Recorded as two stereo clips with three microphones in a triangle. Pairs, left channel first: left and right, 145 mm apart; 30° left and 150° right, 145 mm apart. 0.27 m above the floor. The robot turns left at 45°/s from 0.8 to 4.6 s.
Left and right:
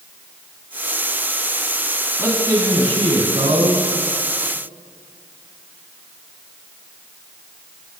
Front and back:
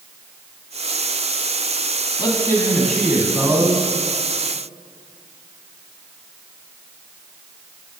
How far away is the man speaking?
About 2.5 m.